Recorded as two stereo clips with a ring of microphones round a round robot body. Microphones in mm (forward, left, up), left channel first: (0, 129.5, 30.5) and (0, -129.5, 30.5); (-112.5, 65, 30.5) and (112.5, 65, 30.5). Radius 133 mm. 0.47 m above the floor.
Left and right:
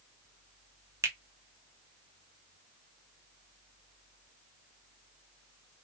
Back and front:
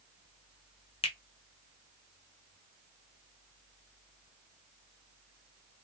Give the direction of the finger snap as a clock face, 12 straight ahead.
5 o'clock.